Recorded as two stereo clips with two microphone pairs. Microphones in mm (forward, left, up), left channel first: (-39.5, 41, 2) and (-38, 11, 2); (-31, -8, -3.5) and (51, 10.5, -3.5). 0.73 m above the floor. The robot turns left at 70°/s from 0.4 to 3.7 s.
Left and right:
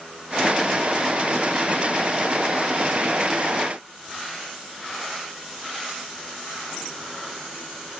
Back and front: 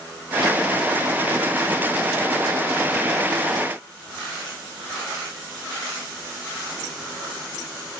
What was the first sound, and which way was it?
Only background noise.